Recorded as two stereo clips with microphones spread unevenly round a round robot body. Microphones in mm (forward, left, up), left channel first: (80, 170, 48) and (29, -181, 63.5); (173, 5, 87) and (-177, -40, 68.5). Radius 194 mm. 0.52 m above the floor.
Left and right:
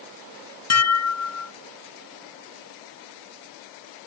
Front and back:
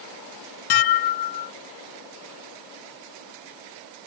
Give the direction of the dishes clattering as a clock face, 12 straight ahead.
11 o'clock.